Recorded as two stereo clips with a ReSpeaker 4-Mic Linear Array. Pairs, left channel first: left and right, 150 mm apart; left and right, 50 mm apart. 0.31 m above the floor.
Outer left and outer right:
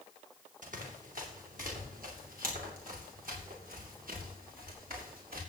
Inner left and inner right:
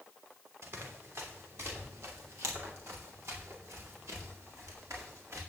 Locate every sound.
0.6 s running footsteps: 65° right (ahead or behind), 5.5 m; by 5.4 s 75° right (ahead or behind), 9 m